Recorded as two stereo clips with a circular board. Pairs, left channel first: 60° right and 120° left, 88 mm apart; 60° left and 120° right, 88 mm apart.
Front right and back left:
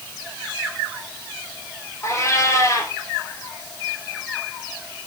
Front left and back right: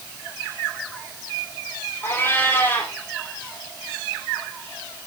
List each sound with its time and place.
2.0 s a cat meowing: straight ahead, 2.5 m